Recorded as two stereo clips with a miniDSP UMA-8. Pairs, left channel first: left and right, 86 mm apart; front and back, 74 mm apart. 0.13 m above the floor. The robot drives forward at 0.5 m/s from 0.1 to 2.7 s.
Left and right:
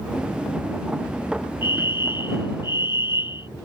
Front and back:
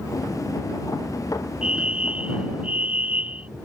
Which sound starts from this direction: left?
A fire alarm, at 1.6 s.